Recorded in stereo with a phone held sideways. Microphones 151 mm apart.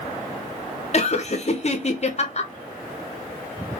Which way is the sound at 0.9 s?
45° left (ahead or behind).